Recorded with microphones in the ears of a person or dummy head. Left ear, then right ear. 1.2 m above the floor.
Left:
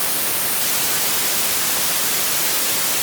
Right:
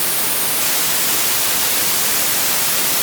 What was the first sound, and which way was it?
Only background noise.